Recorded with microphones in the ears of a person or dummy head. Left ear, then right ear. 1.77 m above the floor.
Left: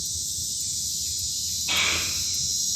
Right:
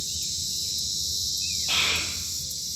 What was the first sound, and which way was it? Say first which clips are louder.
A child speaking: left 1 dB; 15° right (ahead or behind).